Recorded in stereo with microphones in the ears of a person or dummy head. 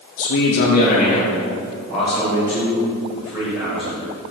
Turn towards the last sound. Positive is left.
turn(degrees=-15)  # may be behind; listen again after turning